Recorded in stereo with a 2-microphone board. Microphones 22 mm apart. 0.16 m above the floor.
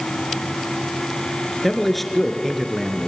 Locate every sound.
1.6 s a man speaking: 10° left (ahead or behind), 2.5 m